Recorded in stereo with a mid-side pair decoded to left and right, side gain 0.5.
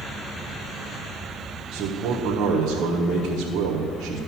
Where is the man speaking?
70° right, 1.6 m.